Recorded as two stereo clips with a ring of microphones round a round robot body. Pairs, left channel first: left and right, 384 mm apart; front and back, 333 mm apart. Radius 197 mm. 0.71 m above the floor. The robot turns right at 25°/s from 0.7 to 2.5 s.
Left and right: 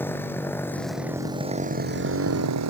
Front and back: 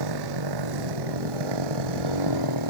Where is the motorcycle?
175° left; by 2.7 s 140° right.